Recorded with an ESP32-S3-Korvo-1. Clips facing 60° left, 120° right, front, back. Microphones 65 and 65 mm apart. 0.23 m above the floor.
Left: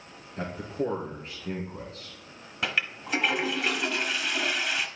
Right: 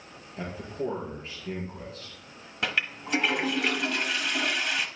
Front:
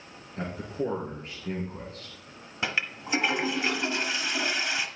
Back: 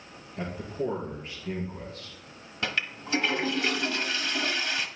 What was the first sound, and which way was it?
A man speaking, 25° left.